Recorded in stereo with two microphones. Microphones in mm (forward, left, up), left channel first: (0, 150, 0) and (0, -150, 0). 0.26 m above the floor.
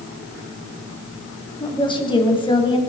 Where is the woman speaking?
15° left (ahead or behind), 1.9 m.